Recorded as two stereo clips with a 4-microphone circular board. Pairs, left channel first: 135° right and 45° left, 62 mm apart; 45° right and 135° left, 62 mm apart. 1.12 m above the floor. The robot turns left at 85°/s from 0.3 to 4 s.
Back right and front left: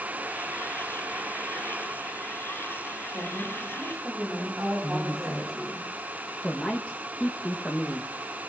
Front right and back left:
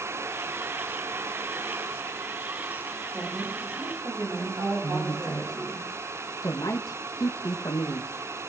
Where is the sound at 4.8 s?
65° right, 1.3 m.